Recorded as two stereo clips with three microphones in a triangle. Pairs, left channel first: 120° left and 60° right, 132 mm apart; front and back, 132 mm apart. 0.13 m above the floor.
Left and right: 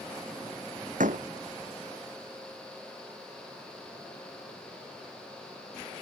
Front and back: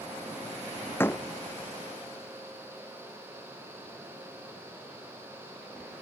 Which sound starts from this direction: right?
A door slam, at 1.0 s.